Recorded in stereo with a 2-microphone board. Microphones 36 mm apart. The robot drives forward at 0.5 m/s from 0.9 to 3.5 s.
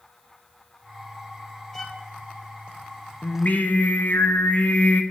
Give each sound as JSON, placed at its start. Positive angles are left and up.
{"t": 1.7, "sound": "a violin", "side_deg": 5, "distance_m": 1.5}
{"t": 3.2, "sound": "singing", "side_deg": 40, "distance_m": 1.1}